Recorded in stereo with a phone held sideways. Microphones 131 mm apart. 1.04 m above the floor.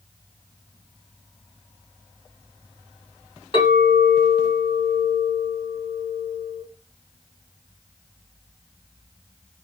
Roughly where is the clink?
Left.